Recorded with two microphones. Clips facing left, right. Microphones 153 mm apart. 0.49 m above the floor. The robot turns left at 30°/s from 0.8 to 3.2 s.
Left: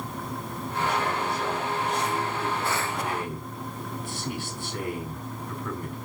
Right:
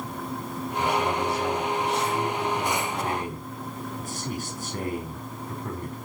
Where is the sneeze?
I don't hear a sneeze.